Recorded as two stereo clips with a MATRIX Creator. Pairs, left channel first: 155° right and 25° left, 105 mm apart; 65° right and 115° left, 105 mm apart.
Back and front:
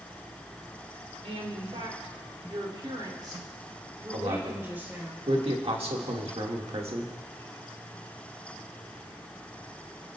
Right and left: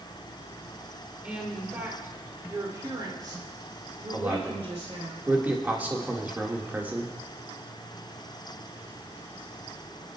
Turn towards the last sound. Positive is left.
turn(degrees=40)